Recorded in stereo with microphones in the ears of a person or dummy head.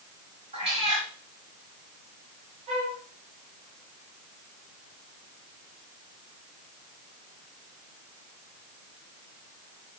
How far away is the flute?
About 1.6 m.